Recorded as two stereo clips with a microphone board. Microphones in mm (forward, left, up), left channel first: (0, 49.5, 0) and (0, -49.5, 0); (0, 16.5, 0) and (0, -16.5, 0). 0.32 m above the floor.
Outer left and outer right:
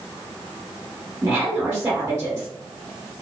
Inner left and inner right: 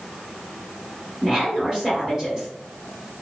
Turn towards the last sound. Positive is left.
turn(degrees=-20)  # may be behind; listen again after turning